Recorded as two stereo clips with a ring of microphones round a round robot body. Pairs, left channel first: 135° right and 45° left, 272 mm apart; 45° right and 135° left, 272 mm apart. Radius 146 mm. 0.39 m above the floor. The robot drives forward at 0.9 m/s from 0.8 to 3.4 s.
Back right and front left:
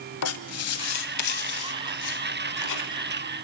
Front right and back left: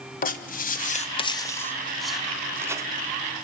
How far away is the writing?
About 1.6 m.